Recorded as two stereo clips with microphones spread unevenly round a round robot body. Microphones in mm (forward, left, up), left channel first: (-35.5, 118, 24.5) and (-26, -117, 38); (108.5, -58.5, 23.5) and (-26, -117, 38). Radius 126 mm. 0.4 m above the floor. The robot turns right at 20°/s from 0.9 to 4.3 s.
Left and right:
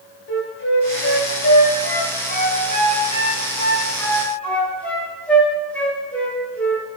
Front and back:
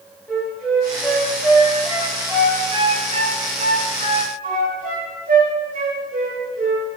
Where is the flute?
105° left, 1.6 m; by 6.9 s 175° left, 1.6 m.